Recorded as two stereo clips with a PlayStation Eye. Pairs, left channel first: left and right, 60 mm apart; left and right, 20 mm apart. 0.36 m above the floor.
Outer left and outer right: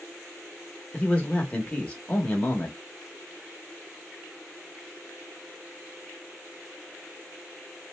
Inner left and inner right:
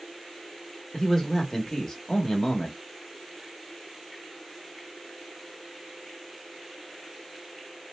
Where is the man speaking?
20° left (ahead or behind), 0.8 m.